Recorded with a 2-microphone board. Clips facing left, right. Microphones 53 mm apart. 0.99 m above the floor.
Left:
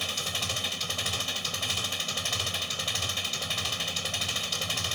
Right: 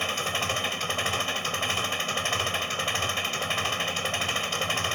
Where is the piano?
I don't hear a piano.